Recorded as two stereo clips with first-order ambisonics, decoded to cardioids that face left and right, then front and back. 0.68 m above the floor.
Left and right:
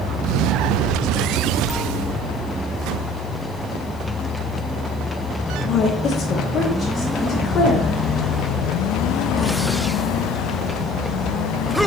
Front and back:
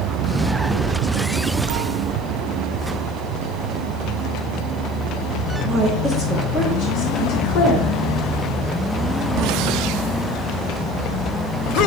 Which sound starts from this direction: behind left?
A woman speaking, at 5.6 s.